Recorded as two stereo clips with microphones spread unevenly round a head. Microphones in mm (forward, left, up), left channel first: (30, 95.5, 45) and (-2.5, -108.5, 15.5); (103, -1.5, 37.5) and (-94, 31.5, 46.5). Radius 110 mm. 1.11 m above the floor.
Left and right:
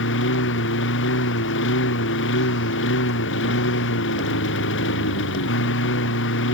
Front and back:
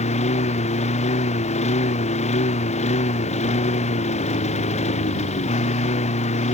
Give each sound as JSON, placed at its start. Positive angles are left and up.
{"t": 0.0, "sound": "a lawn mower", "azimuth_deg": 50}